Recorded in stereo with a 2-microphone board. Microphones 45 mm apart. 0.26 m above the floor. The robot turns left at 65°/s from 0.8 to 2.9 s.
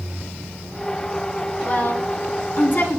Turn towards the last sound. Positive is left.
turn(degrees=50)  # may be behind; listen again after turning